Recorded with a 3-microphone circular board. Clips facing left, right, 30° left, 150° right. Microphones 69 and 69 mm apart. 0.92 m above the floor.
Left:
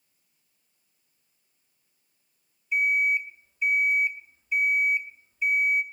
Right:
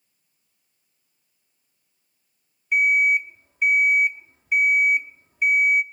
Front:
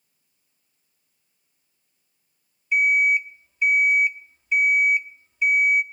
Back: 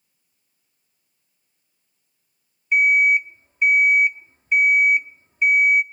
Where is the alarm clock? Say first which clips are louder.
Right 5 dB, back 3 dB; 105° right, 0.7 m.